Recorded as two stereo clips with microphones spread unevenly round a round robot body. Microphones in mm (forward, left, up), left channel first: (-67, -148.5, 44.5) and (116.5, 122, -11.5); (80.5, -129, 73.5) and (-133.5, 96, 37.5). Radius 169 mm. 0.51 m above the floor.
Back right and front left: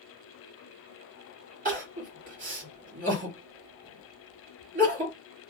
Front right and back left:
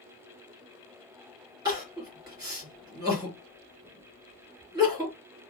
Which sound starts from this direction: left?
Crying, at 1.6 s.